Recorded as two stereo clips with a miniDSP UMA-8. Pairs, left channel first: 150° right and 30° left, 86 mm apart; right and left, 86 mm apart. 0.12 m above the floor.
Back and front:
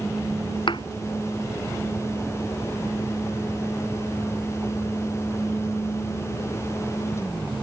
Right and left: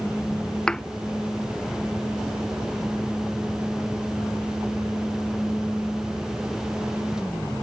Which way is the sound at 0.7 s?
170° right.